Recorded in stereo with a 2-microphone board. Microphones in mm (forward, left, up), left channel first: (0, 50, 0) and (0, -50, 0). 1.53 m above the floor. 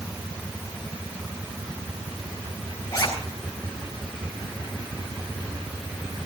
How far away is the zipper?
About 8.5 m.